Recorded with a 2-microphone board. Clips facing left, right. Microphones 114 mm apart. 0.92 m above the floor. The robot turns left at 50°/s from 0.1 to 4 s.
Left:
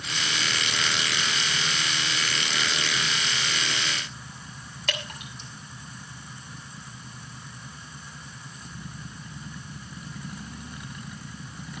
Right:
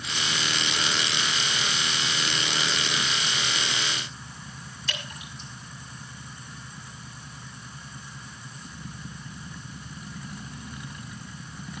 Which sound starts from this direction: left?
Dripping, at 4.9 s.